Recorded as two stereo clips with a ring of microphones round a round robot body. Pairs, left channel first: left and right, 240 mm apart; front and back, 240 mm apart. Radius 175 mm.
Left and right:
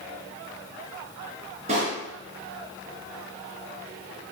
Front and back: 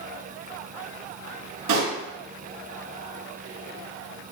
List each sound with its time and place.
1.7 s a pop: 160° right, 2.5 m